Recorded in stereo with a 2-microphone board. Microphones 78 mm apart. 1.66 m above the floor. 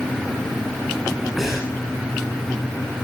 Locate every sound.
1.4 s breathing: 5° right (ahead or behind), 10 m